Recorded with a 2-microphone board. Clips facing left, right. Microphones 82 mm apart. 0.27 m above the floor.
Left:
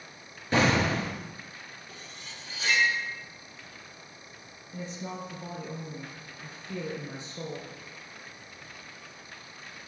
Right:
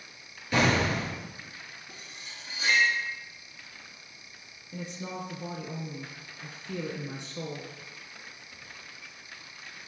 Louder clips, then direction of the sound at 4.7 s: Even; 65° right (ahead or behind).